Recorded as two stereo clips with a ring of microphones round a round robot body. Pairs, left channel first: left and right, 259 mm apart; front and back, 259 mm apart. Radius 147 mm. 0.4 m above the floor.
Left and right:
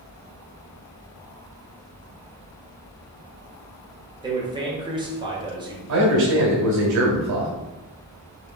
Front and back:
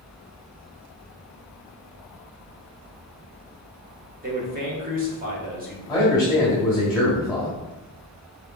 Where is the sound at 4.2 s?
150° right, 1.3 m.